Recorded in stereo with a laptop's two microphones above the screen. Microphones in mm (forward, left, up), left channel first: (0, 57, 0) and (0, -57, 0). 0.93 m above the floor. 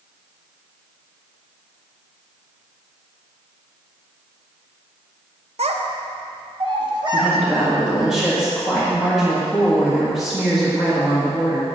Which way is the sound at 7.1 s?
5° right (ahead or behind).